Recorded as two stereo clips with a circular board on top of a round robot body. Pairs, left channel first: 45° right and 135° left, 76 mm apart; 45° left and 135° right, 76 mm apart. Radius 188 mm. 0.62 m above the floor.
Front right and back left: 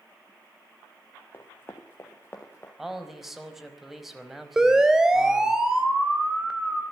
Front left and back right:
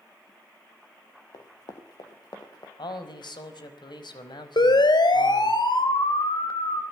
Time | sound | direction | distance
1.3 | running footsteps | 15° left | 3.5 m
2.8 | a man speaking | 45° left | 5 m
4.6 | a siren | 50° left | 4 m